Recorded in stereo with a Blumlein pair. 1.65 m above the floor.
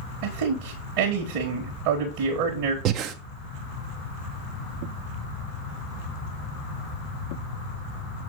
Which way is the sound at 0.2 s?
45° right.